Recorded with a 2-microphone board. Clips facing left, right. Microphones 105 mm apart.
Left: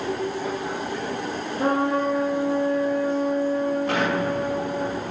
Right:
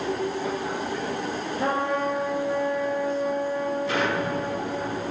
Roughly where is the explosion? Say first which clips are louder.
Left 2 dB; left.